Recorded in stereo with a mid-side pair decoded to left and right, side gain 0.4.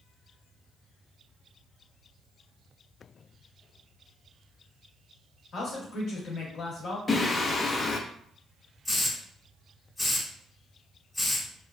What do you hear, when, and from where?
5.5 s a man speaking: 65° left, 1.0 m
7.1 s singing: 40° left, 0.6 m
8.8 s a hiss: 20° left, 1.2 m